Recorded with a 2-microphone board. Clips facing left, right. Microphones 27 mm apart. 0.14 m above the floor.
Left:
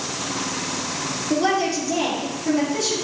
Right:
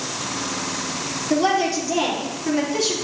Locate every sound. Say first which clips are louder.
1.3 s a woman speaking: right 1 dB; 5° right (ahead or behind), 3.5 m; by 2.9 s 20° right (ahead or behind), 3 m